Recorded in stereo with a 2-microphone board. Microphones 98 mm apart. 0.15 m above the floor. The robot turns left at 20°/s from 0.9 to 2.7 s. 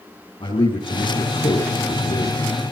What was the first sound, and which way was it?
A man speaking, 115° left.